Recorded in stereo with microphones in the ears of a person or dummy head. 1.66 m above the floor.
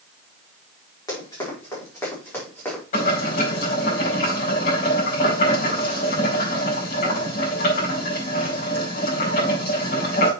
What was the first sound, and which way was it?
Running footsteps, 25° left (ahead or behind).